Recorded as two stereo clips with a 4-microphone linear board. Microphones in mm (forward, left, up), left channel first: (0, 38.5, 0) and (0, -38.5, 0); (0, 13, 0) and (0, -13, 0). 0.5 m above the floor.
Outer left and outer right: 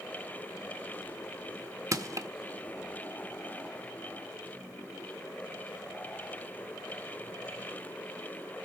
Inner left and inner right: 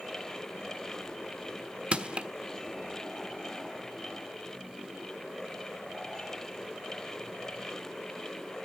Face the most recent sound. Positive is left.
turn(degrees=-45)  # may be behind; listen again after turning